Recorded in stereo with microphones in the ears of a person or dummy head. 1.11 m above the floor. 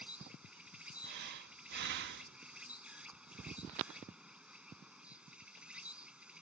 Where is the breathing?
60° right (ahead or behind).